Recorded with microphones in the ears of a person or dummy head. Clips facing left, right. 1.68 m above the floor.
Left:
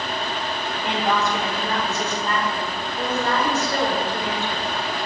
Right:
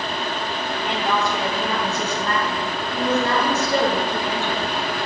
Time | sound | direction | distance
0.8 | a woman speaking | 15° left (ahead or behind) | 1.6 m